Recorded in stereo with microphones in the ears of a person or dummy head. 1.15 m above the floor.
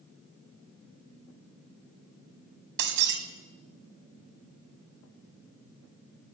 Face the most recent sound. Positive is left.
turn(degrees=-70)  # may be behind; listen again after turning